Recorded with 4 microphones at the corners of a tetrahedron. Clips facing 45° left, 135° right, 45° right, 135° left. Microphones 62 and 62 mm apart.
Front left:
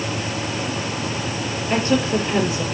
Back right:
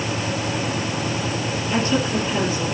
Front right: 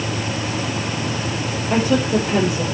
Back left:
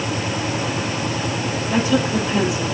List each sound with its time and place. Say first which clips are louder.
1.7 s a woman speaking: front left 2 dB, front right 2 dB; 5° right, 6 m